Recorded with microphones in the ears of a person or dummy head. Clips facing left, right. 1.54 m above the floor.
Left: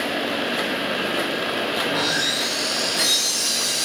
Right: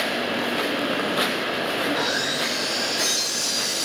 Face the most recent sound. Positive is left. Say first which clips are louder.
# even
turn(degrees=55)  # may be behind; listen again after turning